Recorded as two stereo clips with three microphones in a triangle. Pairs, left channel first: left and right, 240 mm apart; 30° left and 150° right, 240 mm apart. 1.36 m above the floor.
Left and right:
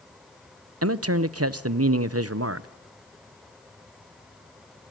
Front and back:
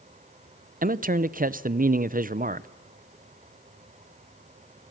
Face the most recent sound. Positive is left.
turn(degrees=-95)